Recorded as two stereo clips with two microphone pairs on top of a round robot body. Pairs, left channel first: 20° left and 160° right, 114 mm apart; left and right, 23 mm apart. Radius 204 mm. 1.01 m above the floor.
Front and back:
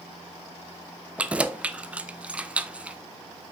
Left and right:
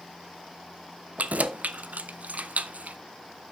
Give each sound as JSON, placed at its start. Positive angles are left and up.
{"t": 1.2, "sound": "keys jangling", "azimuth_deg": -80, "distance_m": 0.6}